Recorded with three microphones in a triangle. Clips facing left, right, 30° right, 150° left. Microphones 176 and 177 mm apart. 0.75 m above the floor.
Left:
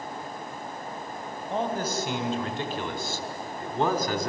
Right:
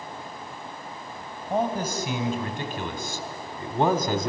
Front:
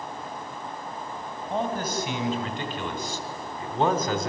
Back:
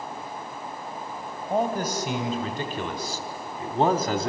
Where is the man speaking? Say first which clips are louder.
Right 3 dB, back 3 dB; 165° right, 3.5 m; by 4.3 s 155° right, 1.8 m.